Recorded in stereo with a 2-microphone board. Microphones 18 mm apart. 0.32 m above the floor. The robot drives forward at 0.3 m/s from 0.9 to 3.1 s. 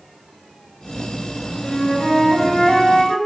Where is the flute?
65° left (ahead or behind), 3 m; by 3.2 s 60° left (ahead or behind), 3.5 m.